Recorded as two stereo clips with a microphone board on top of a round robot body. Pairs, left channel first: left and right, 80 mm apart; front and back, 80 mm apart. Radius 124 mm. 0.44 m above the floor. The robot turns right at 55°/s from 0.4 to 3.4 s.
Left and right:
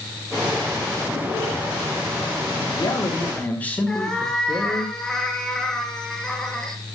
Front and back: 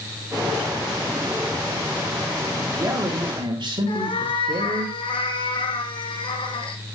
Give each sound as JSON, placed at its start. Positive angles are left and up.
{"t": 2.5, "sound": "a man speaking", "azimuth_deg": 110, "distance_m": 4.5}
{"t": 3.9, "sound": "a cat meowing", "azimuth_deg": 5, "distance_m": 2.0}